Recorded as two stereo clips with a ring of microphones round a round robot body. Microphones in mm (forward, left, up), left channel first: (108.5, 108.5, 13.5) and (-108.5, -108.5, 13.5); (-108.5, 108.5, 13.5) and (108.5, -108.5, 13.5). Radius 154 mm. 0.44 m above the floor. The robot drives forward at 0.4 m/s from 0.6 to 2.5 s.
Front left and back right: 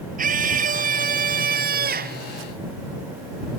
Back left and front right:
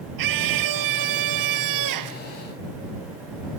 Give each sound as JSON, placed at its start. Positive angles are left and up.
{"t": 0.2, "sound": "a scream", "azimuth_deg": -70}